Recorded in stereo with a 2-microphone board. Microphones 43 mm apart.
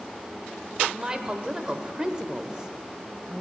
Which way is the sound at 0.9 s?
20° right (ahead or behind).